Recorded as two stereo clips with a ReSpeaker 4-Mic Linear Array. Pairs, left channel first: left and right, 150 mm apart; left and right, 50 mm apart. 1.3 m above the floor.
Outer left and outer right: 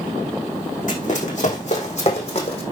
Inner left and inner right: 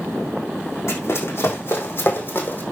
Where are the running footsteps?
60° left (ahead or behind), 5 m; by 2.6 s 45° left (ahead or behind), 4 m.